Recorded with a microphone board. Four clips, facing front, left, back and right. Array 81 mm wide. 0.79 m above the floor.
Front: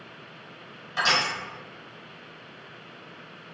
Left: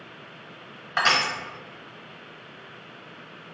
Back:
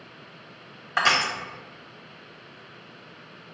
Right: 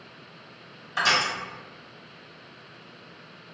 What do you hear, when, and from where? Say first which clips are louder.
1.0 s crushing: left 1 dB, back 3 dB; 150° left, 1.0 m